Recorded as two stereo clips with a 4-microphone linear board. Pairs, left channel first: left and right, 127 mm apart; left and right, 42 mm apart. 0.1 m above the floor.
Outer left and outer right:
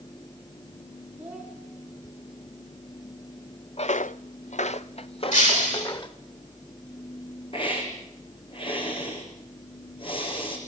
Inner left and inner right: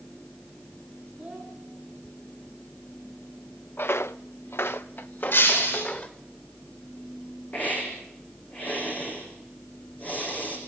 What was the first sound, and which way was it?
A child speaking, 15° right (ahead or behind).